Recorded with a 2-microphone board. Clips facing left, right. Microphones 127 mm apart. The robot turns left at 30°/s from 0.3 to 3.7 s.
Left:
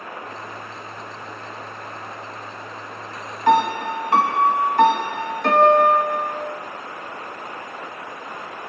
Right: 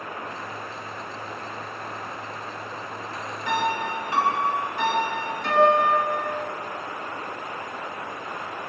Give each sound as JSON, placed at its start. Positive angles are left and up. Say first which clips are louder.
{"t": 3.5, "sound": "a piano", "louder": "left 8 dB", "side_deg": 65, "distance_m": 3.5}